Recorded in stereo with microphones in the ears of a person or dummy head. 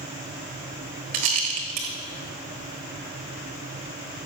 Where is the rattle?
30° right (ahead or behind), 1.1 m.